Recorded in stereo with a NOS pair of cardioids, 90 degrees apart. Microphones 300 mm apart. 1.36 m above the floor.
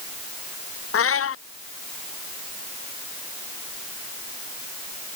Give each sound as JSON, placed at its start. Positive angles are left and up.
{"t": 0.9, "sound": "a cat meowing", "azimuth_deg": 50}